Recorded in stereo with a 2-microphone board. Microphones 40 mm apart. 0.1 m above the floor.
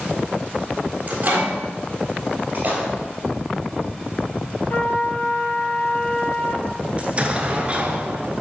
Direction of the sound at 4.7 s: 55° left (ahead or behind).